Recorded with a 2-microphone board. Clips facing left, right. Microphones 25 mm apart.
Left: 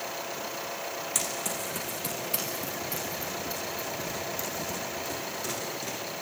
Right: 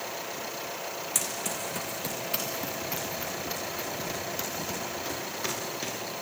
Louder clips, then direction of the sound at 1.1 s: Even; centre (ahead or behind).